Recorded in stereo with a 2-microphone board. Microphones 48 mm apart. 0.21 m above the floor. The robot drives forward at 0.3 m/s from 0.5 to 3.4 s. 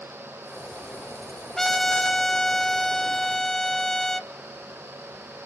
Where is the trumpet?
10° left (ahead or behind), 0.5 m; by 4.3 s 5° left (ahead or behind), 0.6 m.